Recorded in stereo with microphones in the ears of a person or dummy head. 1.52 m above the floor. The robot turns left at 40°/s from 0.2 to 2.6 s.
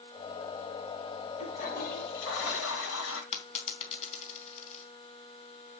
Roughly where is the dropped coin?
Left.